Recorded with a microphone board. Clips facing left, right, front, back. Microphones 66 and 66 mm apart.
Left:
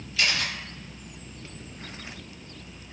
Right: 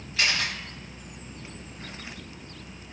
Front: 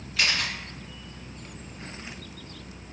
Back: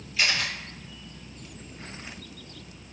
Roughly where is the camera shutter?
Ahead right.